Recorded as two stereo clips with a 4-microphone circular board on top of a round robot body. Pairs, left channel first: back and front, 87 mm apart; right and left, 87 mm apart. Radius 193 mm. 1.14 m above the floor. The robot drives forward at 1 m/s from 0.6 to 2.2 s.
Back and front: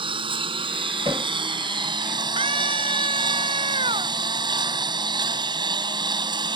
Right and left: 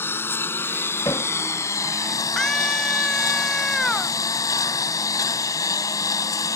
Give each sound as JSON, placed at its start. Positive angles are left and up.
{"t": 0.0, "sound": "a lawn mower", "azimuth_deg": -25}
{"t": 1.1, "sound": "hammering", "azimuth_deg": -30}
{"t": 2.4, "sound": "a scream", "azimuth_deg": -5}